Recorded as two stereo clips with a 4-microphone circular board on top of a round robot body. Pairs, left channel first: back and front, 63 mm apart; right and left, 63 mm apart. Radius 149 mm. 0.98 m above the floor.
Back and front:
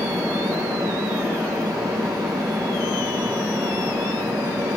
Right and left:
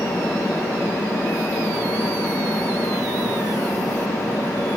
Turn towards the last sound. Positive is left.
No sound to turn to.